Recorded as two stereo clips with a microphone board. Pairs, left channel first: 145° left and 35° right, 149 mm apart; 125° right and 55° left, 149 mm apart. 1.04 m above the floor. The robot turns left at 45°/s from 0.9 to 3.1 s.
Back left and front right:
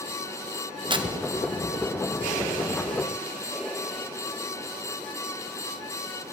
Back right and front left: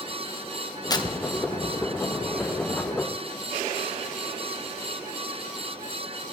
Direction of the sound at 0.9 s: 75° right.